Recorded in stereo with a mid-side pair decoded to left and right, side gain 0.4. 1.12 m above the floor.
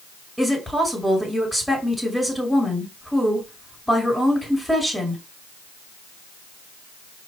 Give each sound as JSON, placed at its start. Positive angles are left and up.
{"t": 0.4, "sound": "a woman speaking", "azimuth_deg": 0, "distance_m": 2.0}